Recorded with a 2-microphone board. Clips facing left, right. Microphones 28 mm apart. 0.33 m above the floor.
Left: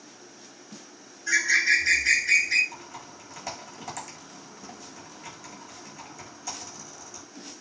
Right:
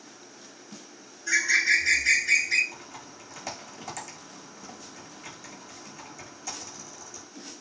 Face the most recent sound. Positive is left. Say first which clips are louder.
# left 2 dB
turn(degrees=0)  # may be behind; listen again after turning